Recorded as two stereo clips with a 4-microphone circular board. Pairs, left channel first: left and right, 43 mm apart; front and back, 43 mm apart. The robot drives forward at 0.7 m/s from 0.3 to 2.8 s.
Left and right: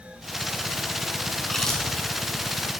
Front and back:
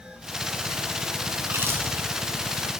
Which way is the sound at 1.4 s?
165° left.